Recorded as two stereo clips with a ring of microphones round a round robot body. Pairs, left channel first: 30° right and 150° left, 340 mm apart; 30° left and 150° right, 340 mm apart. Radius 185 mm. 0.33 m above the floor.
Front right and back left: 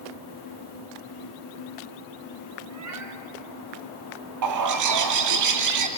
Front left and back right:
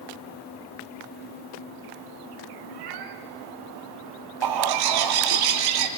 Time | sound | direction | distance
2.7 | a cat meowing | 170° right | 2 m
4.4 | a bird | 170° right | 2 m